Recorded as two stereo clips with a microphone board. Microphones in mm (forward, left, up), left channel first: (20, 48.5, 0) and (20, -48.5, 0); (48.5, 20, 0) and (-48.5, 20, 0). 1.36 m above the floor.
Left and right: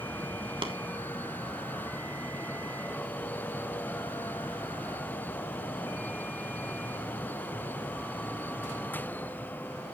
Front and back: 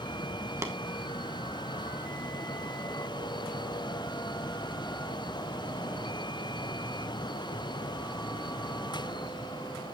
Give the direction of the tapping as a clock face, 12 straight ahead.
4 o'clock.